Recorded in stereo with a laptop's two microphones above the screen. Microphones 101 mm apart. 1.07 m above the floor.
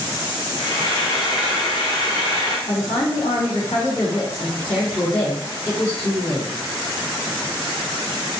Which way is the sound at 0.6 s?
55° left (ahead or behind).